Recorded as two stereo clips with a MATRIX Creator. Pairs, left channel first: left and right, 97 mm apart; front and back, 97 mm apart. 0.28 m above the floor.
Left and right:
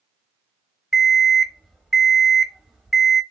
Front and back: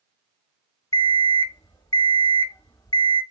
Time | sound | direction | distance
0.9 | an alarm clock | straight ahead | 0.8 m